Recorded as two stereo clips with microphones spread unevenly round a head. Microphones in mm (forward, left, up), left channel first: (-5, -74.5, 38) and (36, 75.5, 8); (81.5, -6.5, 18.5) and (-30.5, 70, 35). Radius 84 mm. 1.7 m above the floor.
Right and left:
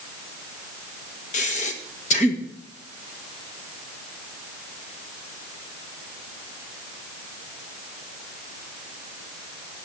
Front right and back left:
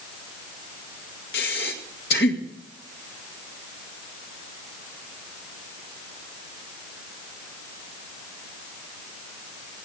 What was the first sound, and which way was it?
Breathing, 65° right.